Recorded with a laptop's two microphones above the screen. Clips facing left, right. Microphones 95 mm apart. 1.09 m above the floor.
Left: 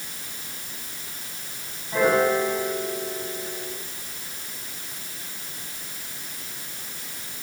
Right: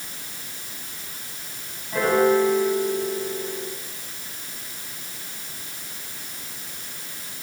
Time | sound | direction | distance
1.9 | a piano | 5° left (ahead or behind) | 8 m